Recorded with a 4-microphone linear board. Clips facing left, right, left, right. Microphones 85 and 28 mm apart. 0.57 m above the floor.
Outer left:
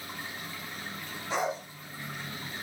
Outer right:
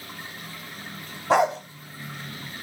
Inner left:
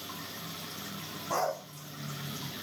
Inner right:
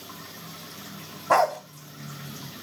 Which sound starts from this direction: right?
A dog barking, at 1.3 s.